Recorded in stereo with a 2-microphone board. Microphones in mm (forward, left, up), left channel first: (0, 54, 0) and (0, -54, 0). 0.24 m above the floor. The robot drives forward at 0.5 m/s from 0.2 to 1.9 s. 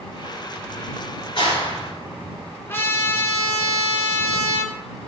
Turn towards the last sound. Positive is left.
turn(degrees=25)  # may be behind; listen again after turning